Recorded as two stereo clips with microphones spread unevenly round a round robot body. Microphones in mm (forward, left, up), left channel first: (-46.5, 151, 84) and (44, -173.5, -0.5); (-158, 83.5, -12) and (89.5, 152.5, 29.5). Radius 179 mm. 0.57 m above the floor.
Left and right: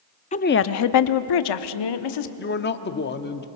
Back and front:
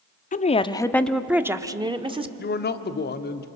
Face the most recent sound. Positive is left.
turn(degrees=170)